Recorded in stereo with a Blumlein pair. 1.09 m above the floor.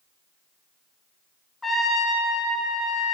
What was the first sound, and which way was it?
A trumpet, 10° left.